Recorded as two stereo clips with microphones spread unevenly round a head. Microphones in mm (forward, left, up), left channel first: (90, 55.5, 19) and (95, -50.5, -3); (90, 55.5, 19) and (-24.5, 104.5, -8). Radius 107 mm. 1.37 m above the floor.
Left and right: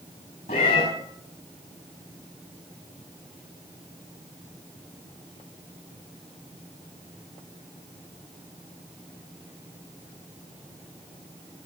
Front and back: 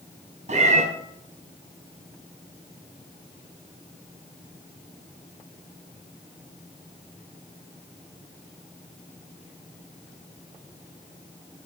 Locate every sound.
0.5 s a cat meowing: 135° left, 5.5 m